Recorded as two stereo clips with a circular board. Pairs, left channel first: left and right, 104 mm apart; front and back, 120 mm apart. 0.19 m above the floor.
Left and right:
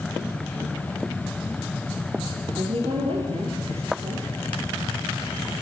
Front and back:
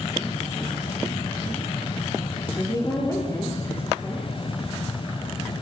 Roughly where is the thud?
No thud in this recording.